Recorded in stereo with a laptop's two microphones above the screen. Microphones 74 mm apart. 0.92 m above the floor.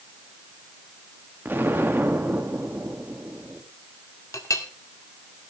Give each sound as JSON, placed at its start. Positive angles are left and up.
{"t": 1.4, "sound": "an explosion", "side_deg": -30, "distance_m": 2.0}
{"t": 4.3, "sound": "a clink", "side_deg": 45, "distance_m": 1.9}